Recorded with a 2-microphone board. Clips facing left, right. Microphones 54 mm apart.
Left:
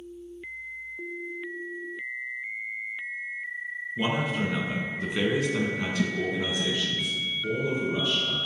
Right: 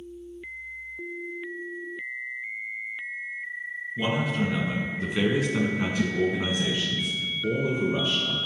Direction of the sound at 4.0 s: 15° left (ahead or behind).